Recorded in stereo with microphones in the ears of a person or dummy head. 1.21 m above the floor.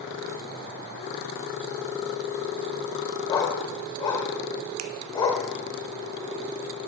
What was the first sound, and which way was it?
A dog barking, 20° left (ahead or behind).